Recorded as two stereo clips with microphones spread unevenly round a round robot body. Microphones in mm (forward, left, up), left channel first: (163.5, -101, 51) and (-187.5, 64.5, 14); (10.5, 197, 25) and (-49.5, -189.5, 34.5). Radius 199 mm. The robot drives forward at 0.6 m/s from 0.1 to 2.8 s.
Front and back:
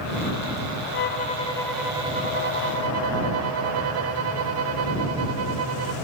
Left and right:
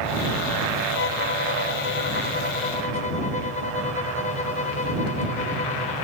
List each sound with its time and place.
0.9 s a violin: 30° left, 1.0 m; by 5.9 s 145° left, 1.0 m